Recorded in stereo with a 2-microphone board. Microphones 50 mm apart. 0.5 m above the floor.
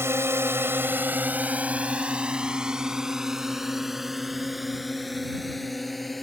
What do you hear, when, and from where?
0.0 s a drone: 60° right (ahead or behind); by 6.2 s centre (ahead or behind)